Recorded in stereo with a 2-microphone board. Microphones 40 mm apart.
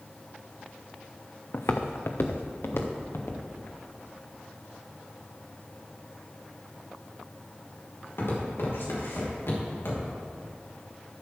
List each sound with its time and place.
1.5 s footsteps: 85° left, 0.9 m; by 10.3 s 75° left (ahead or behind), 5.5 m